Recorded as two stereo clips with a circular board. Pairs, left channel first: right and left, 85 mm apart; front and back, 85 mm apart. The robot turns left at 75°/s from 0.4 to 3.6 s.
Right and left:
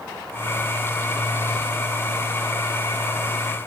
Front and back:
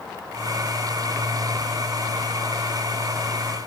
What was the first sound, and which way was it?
Only background noise.